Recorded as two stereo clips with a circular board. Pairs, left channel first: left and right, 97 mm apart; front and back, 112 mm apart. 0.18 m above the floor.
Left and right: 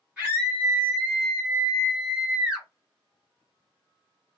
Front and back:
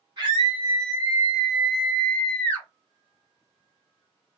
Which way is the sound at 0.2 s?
160° right.